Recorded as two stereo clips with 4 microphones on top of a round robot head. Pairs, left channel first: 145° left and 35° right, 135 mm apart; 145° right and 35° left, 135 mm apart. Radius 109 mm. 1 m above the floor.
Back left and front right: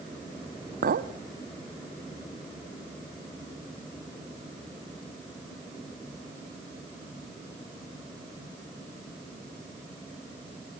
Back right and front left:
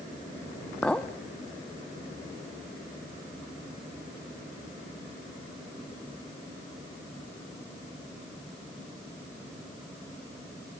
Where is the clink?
60° right, 1.3 m.